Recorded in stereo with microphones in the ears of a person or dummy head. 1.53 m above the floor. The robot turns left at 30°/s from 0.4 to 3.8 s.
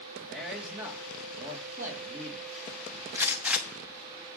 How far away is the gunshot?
About 1.1 m.